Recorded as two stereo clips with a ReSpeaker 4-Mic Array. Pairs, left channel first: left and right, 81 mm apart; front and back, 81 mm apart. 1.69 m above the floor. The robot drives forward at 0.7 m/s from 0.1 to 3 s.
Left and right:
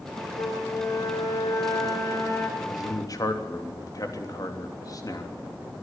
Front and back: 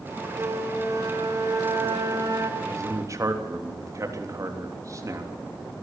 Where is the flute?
125° left, 3.5 m; by 2.5 s 140° left, 5 m.